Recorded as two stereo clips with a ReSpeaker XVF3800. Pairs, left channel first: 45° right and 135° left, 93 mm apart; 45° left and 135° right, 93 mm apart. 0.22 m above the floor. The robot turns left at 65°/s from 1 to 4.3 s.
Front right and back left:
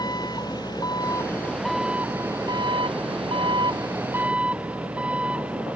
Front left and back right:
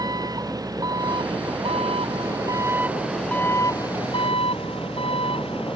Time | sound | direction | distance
0.0 | an engine running | 85° right | ?